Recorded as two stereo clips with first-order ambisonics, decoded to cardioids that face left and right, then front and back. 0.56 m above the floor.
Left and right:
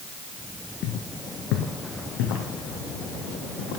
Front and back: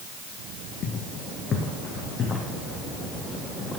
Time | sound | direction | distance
0.8 | footsteps | 50° left | 1.3 m